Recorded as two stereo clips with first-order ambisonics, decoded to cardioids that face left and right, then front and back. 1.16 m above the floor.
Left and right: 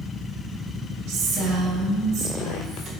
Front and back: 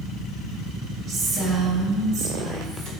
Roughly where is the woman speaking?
Behind right.